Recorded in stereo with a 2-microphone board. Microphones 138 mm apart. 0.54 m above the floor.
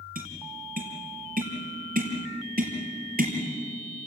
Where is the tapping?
90° right, 4.5 m.